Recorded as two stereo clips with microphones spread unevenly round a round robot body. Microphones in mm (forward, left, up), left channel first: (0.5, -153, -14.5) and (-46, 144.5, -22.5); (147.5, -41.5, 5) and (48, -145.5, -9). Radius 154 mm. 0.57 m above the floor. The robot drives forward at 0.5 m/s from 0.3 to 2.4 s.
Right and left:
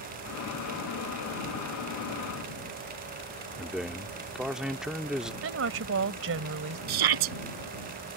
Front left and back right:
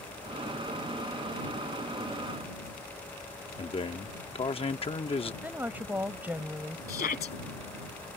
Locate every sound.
3.6 s a man speaking: 15° left
5.4 s a woman speaking: 145° left
6.9 s a shout: 105° left